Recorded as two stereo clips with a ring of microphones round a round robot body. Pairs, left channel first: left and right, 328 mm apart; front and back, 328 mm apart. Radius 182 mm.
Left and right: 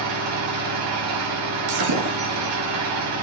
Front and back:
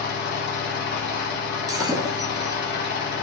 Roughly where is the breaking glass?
Right.